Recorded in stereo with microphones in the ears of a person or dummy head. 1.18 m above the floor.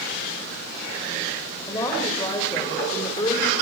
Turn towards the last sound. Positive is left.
turn(degrees=25)  # may be behind; listen again after turning